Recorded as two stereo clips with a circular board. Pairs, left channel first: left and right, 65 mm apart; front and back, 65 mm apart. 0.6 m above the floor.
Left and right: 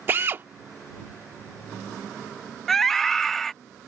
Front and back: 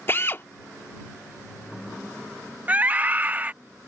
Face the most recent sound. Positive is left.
turn(degrees=170)